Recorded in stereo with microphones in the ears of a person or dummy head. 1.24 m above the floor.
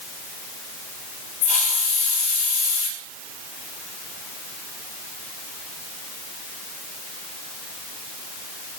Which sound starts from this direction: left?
A hiss, at 1.4 s.